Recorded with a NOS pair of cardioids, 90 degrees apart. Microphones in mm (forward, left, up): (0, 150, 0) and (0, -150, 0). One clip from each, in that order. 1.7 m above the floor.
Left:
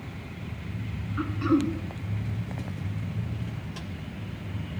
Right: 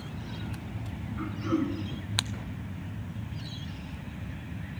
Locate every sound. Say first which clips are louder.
1.2 s throat clearing: left 5 dB; 65° left, 1.6 m